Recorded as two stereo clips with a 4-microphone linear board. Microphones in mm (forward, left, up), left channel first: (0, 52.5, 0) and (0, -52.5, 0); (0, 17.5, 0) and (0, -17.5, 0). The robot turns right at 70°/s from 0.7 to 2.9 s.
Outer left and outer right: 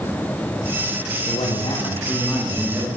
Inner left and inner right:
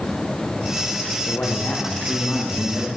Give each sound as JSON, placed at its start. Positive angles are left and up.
{"t": 1.3, "sound": "a man speaking", "azimuth_deg": 95, "distance_m": 7.0}